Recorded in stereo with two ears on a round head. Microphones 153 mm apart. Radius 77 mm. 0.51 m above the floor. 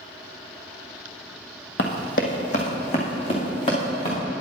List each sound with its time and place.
1.8 s running footsteps: 60° left (ahead or behind), 1.0 m; by 4.2 s 30° left (ahead or behind), 3 m